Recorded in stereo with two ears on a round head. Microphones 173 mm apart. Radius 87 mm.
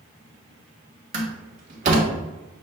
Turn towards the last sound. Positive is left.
turn(degrees=-40)  # may be behind; listen again after turning